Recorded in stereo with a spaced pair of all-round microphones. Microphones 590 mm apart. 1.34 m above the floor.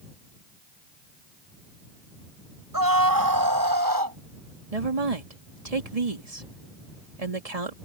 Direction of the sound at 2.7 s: 35° right (ahead or behind).